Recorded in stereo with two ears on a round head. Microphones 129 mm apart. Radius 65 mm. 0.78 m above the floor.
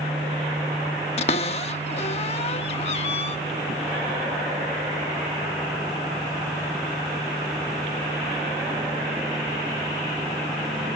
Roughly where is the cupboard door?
Left.